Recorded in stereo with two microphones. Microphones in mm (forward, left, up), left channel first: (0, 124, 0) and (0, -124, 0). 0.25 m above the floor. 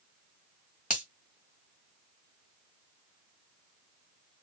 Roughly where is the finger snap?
Left.